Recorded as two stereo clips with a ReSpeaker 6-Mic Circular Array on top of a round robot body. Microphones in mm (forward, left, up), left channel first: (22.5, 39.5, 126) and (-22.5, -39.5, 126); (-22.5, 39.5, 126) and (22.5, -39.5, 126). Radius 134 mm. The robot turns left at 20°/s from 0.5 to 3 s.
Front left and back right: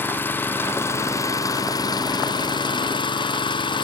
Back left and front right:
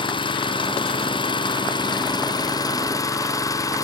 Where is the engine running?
125° left, 1.4 m; by 3.8 s 75° left, 1.4 m.